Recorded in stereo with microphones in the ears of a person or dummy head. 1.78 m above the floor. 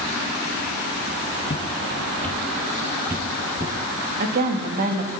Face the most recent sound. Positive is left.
turn(degrees=-45)  # may be behind; listen again after turning